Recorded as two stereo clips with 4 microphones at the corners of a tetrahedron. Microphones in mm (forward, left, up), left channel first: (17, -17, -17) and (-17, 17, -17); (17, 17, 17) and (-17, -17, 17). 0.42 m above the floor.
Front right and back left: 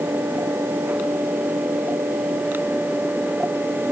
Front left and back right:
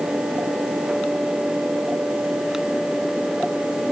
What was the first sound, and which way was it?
Only background noise.